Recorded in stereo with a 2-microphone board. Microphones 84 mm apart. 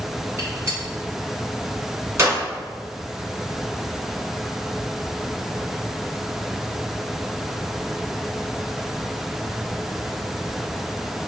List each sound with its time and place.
0.4 s a gunshot: 40° right (ahead or behind), 1.6 m